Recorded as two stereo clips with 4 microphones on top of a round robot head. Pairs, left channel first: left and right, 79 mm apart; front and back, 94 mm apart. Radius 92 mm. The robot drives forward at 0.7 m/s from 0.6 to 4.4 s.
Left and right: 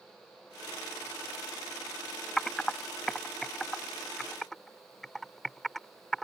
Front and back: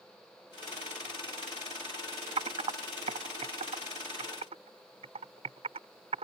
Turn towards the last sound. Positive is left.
turn(degrees=180)